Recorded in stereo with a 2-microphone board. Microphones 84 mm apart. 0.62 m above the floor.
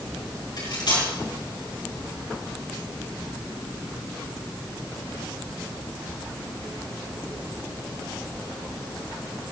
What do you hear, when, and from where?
0.6 s cutlery clinking: 55° left (ahead or behind), 5 m